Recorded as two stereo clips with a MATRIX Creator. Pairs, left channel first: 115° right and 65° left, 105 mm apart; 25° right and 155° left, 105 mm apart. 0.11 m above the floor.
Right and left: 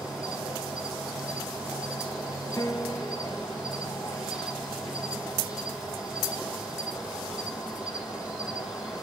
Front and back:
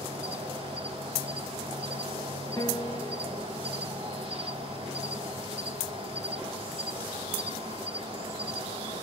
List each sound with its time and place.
0.0 s an insect: 150° left, 3.5 m
2.6 s a piano: 65° right, 0.6 m